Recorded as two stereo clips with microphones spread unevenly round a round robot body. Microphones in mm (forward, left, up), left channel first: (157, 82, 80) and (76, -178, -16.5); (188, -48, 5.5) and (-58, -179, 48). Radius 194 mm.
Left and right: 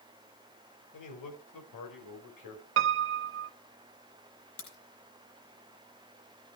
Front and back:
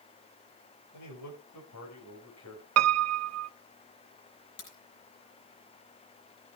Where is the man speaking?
65° left, 4.5 m; by 2.7 s 80° left, 4.5 m.